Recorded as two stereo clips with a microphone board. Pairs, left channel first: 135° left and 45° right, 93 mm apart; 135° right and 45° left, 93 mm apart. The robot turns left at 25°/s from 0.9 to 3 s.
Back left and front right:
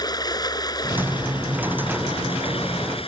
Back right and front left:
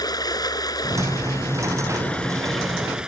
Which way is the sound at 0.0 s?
Straight behind.